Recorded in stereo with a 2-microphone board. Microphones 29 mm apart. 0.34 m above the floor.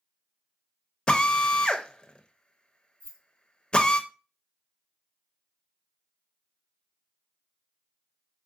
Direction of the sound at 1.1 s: 35° left (ahead or behind).